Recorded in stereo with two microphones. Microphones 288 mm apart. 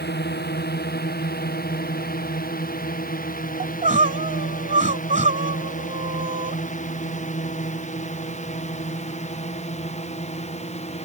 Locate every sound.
0.0 s a drone: 35° left (ahead or behind); by 11.1 s 20° left (ahead or behind)
3.6 s crying: 25° right (ahead or behind)